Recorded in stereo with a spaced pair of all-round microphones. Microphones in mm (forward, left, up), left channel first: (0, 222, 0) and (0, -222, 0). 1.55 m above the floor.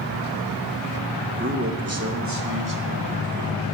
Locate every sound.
1.4 s a man speaking: 25° right (ahead or behind), 2.5 m; by 3.6 s 55° right (ahead or behind), 3 m